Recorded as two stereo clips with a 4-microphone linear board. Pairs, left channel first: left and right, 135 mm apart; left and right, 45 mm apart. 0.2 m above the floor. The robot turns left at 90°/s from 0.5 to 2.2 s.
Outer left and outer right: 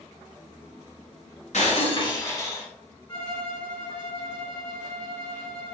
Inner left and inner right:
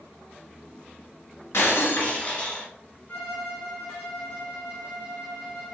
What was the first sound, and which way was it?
Breaking glass, 85° left.